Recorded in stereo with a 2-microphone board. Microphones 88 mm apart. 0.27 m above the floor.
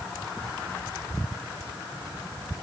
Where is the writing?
No writing in this recording.